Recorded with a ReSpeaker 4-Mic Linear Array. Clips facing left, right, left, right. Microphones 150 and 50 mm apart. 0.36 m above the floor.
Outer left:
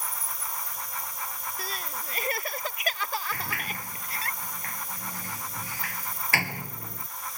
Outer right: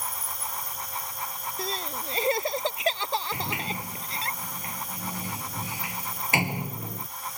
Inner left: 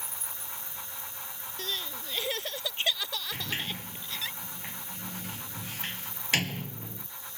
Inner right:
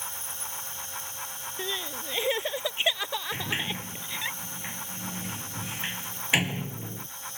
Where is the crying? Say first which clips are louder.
Outer right 7 dB, inner right 3 dB; 25° right (ahead or behind).